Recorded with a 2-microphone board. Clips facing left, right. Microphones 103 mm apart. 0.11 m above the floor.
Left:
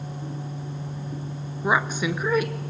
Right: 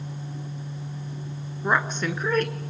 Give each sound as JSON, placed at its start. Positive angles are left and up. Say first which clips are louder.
{"t": 1.6, "sound": "a woman speaking", "louder": "left 1 dB", "side_deg": 5, "distance_m": 1.1}